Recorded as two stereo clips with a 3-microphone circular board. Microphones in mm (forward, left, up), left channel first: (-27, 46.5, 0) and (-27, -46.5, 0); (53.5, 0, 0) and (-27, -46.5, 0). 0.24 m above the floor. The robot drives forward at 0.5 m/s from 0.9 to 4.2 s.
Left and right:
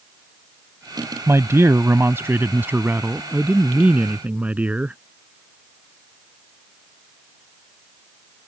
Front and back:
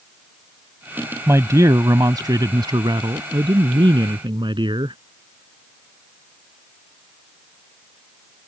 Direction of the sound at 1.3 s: 120° right.